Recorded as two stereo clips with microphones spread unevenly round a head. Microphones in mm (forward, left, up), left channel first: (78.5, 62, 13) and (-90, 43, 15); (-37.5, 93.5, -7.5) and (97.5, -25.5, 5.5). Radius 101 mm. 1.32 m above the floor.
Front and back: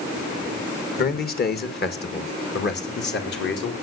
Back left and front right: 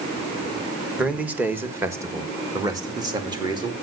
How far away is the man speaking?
About 1.5 m.